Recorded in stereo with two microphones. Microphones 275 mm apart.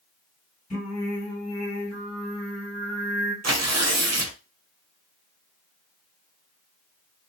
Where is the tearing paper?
70° right (ahead or behind), 0.5 m.